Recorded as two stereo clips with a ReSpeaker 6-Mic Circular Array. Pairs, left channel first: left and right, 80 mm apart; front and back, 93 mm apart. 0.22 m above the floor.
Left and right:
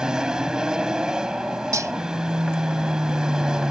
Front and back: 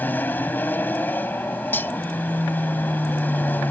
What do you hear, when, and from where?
0.0 s an aircraft: 25° right
1.7 s cutlery clinking: 60° right